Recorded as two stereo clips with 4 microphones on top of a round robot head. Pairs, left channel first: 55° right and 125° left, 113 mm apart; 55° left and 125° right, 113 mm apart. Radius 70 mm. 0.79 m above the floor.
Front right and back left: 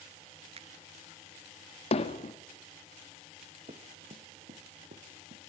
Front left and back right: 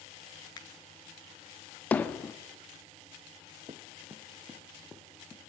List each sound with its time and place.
0.6 s a finger snap: 105° left, 1.3 m
1.9 s hammering: 25° right, 1.2 m
3.7 s running footsteps: 170° left, 2.5 m; by 5.5 s 135° left, 3.5 m